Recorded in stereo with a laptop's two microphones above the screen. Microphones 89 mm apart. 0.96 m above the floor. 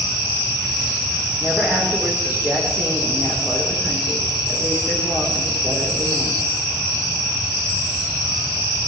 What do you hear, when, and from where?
1.4 s a woman speaking: 25° right (ahead or behind), 3.5 m